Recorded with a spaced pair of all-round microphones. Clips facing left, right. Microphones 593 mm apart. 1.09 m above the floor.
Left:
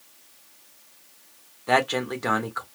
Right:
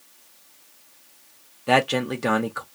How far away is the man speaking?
About 0.8 m.